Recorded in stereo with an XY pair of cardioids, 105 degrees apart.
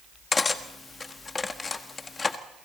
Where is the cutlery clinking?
35° left, 1.4 m.